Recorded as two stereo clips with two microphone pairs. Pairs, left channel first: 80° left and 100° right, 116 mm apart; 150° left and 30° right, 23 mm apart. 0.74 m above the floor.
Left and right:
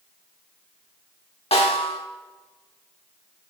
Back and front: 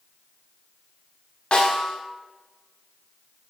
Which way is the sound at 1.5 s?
105° left.